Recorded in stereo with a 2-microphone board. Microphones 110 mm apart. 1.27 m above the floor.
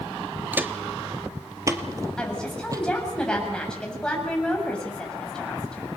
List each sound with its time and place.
0.5 s footsteps: 15° right (ahead or behind), 1.3 m; by 2.8 s 30° right (ahead or behind), 2.5 m
2.2 s a woman speaking: 10° left (ahead or behind), 8 m